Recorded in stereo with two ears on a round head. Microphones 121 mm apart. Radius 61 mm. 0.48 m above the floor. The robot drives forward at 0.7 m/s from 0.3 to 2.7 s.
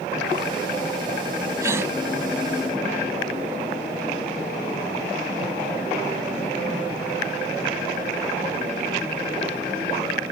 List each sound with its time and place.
1.6 s a gasp: 25° right (ahead or behind); by 1.9 s 20° right (ahead or behind)